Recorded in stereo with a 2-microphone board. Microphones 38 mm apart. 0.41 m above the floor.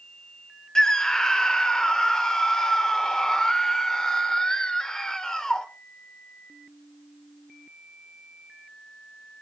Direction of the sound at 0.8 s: 15° left (ahead or behind).